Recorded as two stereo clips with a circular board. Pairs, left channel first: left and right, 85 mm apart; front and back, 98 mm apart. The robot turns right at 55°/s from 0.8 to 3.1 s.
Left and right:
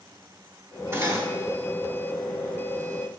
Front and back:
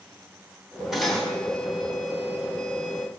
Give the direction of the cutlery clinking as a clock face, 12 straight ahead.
3 o'clock.